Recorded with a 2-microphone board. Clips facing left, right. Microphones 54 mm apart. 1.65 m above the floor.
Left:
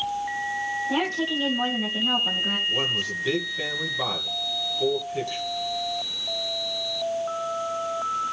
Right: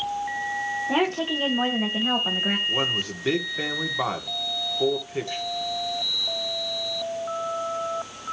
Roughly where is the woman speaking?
Right.